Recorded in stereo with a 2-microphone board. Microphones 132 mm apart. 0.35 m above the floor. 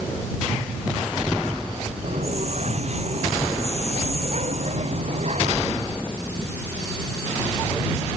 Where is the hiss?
55° right (ahead or behind).